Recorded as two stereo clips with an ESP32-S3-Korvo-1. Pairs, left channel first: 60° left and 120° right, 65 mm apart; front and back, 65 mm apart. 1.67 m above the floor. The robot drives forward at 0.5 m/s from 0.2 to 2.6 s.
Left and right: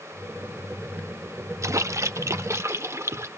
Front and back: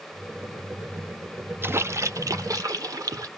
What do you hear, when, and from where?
1.6 s a splash: 135° right, 0.5 m; by 3.3 s 160° right, 0.9 m